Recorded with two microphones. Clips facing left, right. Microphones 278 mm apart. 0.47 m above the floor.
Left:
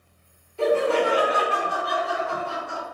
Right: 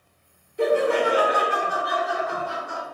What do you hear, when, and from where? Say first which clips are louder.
0.6 s laughter: even; 20° right (ahead or behind), 0.9 m